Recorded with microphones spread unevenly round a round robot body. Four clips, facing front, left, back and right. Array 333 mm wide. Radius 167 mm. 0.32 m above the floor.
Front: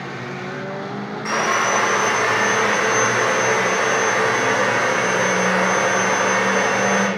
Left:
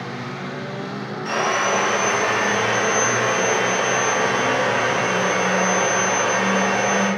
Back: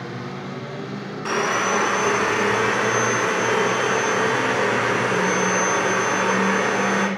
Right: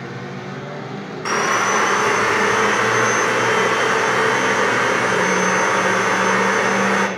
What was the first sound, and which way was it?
Sawing, 130° right.